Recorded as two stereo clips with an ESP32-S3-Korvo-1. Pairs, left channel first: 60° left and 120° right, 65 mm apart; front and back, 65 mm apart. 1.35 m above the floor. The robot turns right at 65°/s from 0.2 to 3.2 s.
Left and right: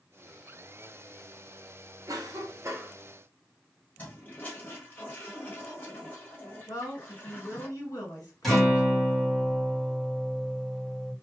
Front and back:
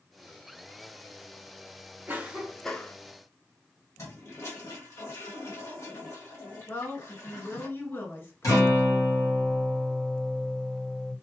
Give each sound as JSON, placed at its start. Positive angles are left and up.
{"t": 2.1, "sound": "a cough", "azimuth_deg": -120, "distance_m": 0.6}
{"t": 4.0, "sound": "a toilet flushing", "azimuth_deg": 5, "distance_m": 1.4}
{"t": 6.7, "sound": "a woman speaking", "azimuth_deg": 55, "distance_m": 1.4}
{"t": 8.4, "sound": "a guitar", "azimuth_deg": -25, "distance_m": 1.7}